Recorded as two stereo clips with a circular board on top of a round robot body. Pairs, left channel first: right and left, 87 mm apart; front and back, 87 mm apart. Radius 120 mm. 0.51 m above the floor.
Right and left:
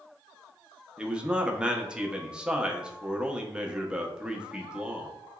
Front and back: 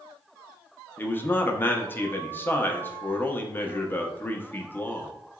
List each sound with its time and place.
1.0 s a man speaking: 25° left, 0.7 m